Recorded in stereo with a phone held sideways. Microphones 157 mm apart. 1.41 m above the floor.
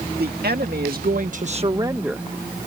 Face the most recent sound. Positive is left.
turn(degrees=0)  # may be behind; listen again after turning